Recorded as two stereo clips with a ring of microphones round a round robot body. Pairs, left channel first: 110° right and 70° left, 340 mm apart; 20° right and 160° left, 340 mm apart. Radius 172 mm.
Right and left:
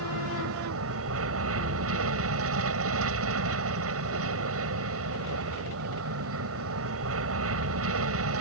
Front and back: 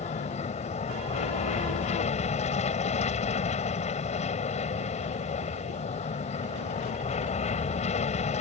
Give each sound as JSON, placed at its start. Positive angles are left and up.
{"t": 0.0, "sound": "an aircraft", "azimuth_deg": 40}